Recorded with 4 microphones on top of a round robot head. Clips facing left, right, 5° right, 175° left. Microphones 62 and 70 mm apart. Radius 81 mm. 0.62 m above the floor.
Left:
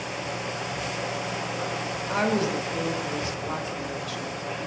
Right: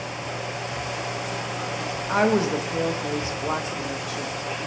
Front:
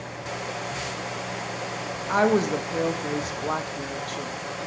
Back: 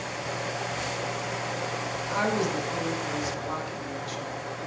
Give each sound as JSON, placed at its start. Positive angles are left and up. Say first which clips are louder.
{"t": 2.1, "sound": "a woman speaking", "louder": "right 4 dB, front 6 dB", "azimuth_deg": -30, "distance_m": 1.1}